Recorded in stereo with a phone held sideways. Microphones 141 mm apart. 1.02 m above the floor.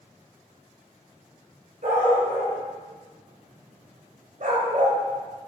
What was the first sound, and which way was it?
A dog barking, 70° right (ahead or behind).